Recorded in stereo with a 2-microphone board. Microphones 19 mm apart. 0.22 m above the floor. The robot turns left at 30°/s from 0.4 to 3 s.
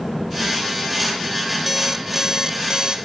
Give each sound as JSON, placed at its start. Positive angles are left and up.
{"t": 1.7, "sound": "an alarm clock", "azimuth_deg": -10}